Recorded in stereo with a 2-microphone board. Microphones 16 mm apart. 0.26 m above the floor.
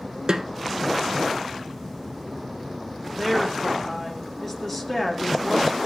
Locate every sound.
0.3 s a snare drum: 55° right (ahead or behind), 1.0 m
3.1 s a woman speaking: 15° left (ahead or behind), 3.5 m